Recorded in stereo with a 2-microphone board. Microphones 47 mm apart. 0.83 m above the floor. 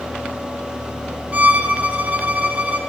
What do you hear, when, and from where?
1.3 s a violin: 30° right (ahead or behind), 0.7 m